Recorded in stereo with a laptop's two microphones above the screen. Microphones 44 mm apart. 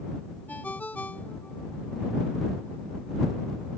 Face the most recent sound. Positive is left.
turn(degrees=40)  # may be behind; listen again after turning